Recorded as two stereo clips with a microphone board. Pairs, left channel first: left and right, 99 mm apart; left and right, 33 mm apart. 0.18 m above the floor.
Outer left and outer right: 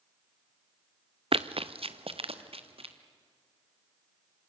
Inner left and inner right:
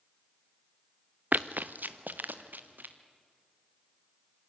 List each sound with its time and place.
1.3 s running footsteps: 70° right (ahead or behind), 0.6 m; by 3.0 s 75° right (ahead or behind), 2.5 m